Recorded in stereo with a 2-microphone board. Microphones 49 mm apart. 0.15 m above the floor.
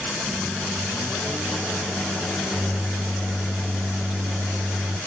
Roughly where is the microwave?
Right.